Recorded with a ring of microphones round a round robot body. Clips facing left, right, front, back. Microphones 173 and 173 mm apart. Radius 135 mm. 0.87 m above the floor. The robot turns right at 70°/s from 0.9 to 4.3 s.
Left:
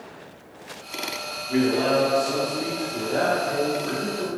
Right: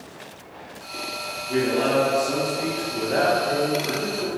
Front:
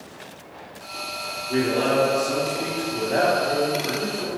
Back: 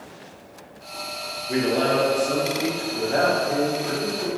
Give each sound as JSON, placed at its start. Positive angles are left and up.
{"t": 1.5, "sound": "a man speaking", "azimuth_deg": 180, "distance_m": 0.9}